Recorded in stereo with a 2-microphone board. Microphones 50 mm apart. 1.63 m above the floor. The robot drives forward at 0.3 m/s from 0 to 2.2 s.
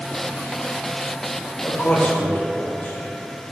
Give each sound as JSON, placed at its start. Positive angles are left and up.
{"t": 1.6, "sound": "a man speaking", "side_deg": 35, "distance_m": 1.8}